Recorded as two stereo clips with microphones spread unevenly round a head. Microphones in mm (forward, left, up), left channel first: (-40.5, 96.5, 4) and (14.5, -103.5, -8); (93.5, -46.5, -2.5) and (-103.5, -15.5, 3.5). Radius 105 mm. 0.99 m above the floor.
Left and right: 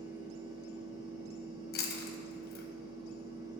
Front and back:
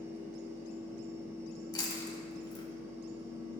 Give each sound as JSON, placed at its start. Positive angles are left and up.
{"t": 0.0, "sound": "a fan", "azimuth_deg": -115, "distance_m": 1.6}
{"t": 1.7, "sound": "chewing", "azimuth_deg": 60, "distance_m": 1.1}